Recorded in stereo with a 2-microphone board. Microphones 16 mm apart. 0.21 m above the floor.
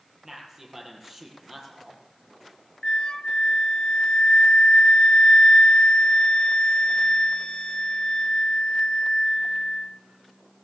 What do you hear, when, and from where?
0.2 s a man speaking: 25° right (ahead or behind), 6.5 m
2.8 s a flute: 55° left (ahead or behind), 0.6 m